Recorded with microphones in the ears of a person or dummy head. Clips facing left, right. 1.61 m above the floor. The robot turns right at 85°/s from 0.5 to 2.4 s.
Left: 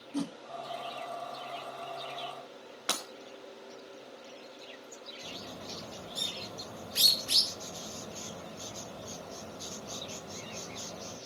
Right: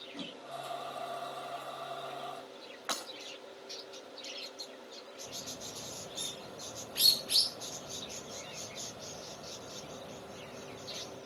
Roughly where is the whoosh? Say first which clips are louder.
Left 11 dB; left.